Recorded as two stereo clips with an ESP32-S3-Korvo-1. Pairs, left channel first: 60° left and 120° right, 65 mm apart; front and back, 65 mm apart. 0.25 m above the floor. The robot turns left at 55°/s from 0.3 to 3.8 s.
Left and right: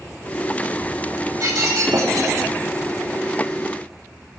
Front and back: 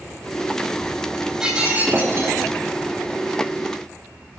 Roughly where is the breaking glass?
Right.